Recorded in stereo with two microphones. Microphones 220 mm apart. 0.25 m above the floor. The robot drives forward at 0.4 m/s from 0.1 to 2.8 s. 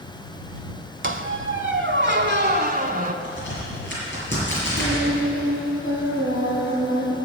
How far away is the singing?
About 5.5 m.